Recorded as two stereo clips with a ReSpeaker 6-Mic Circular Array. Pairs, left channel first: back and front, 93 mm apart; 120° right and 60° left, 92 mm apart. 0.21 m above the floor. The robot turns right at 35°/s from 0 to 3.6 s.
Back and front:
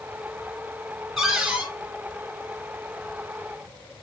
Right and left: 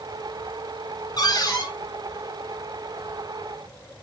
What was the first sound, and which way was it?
A cupboard door, 90° right.